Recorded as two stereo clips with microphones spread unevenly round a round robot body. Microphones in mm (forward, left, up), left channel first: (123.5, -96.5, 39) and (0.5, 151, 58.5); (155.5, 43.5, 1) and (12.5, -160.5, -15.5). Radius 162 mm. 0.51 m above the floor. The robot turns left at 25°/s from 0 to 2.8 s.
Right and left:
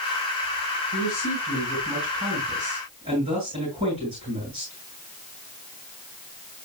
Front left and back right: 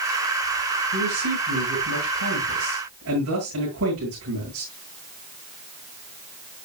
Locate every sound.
0.9 s a man speaking: 125° right, 8.5 m; by 4.7 s 175° right, 8.5 m